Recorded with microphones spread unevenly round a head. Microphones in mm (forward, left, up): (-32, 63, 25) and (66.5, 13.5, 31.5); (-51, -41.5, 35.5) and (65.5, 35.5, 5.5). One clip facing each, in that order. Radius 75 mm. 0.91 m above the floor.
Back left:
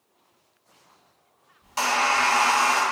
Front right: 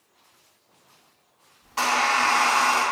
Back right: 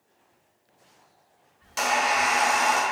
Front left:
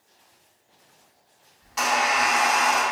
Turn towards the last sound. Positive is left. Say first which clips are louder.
# even, front left 1 dB
turn(degrees=-145)